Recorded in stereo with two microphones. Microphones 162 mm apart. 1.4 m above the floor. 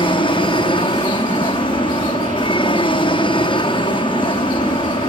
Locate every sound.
0.0 s an aircraft: 30° left (ahead or behind)